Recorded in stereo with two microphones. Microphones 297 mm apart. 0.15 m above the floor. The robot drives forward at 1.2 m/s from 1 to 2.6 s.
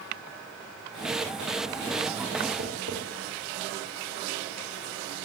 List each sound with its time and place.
2.6 s tapping: 50° right (ahead or behind), 7.5 m